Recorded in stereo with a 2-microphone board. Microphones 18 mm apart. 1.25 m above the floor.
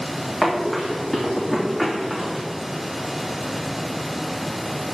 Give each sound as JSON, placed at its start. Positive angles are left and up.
{"t": 0.4, "sound": "running footsteps", "side_deg": 35, "distance_m": 3.5}